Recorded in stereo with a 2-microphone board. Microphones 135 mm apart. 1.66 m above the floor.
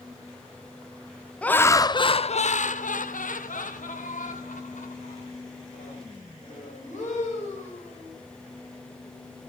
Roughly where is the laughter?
Centre.